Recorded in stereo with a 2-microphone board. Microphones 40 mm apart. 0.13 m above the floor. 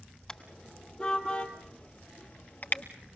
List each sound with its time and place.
0.3 s a car horn: 15° left (ahead or behind), 2.5 m; by 2.8 s 45° left (ahead or behind), 1.6 m